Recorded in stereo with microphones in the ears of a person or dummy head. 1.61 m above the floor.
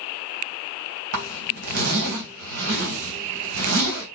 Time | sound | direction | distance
1.1 | a zipper | 65° right (ahead or behind) | 3 m